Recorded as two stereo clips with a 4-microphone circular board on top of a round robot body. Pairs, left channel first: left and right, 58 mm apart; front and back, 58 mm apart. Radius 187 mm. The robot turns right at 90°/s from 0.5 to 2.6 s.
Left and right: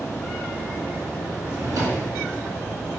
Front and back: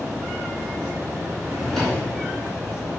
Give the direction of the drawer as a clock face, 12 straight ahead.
4 o'clock.